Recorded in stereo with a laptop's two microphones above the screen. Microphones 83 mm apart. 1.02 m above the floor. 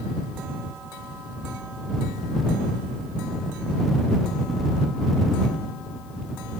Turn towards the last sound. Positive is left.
No sound to turn to.